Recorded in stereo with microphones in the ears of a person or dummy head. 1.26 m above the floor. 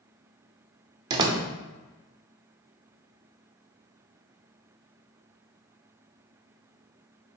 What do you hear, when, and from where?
1.1 s a door slam: 30° right (ahead or behind), 0.5 m